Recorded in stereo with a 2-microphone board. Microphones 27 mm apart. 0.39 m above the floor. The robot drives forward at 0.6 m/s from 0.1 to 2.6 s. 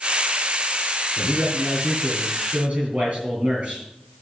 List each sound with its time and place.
1.2 s a man speaking: 45° right (ahead or behind), 7 m; by 3.9 s 50° right (ahead or behind), 6 m